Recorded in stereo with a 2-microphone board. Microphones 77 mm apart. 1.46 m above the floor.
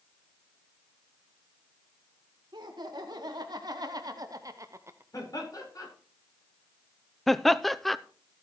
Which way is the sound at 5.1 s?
50° left (ahead or behind).